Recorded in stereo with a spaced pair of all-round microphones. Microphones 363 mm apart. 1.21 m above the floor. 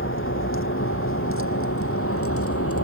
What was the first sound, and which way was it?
A vehicle, 35° left (ahead or behind).